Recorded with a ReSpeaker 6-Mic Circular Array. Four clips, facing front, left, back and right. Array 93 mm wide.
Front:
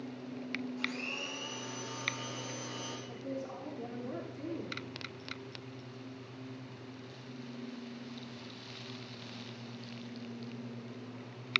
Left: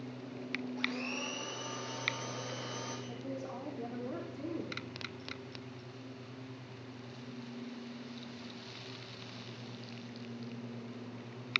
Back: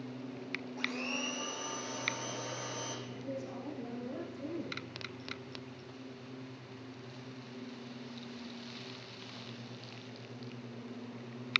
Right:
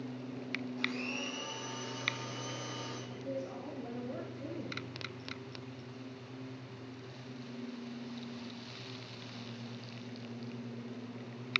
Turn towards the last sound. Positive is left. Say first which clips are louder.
# right 1 dB, front 1 dB
turn(degrees=65)